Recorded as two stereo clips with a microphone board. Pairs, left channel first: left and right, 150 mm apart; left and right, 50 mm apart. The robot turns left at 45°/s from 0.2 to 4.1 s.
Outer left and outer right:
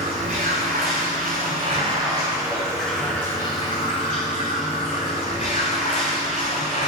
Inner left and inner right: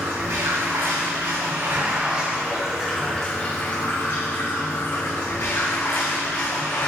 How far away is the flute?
No flute in this recording.